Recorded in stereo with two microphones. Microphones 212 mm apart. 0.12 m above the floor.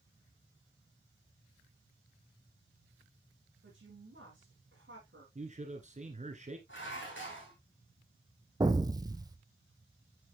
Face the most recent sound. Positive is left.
turn(degrees=-20)  # may be behind; listen again after turning